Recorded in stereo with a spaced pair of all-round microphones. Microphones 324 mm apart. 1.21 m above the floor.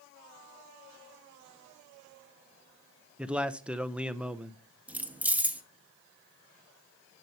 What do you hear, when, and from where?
3.2 s a man speaking: 5° right (ahead or behind), 0.6 m
4.9 s keys jangling: 5° right (ahead or behind), 0.7 m